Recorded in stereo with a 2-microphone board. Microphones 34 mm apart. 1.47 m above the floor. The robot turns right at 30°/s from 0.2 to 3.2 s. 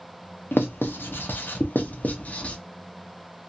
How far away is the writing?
About 0.6 m.